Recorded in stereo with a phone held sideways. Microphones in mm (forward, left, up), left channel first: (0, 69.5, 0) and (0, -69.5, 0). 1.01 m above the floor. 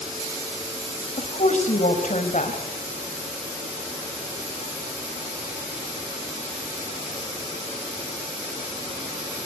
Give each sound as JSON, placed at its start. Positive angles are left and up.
{"t": 1.2, "sound": "a woman speaking", "side_deg": 60, "distance_m": 5.5}